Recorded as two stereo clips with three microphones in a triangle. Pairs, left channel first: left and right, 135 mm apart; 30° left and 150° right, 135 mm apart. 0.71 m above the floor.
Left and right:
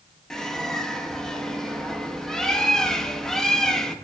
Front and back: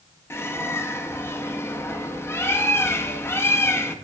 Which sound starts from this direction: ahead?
A bird, at 0.3 s.